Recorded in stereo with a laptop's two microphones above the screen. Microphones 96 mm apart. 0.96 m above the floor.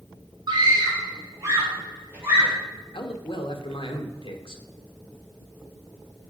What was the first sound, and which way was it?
A scream, 45° right (ahead or behind).